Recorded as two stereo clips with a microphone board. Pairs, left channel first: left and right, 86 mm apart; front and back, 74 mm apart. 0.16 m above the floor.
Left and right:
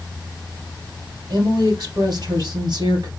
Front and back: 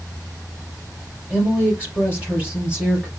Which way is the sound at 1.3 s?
110° right.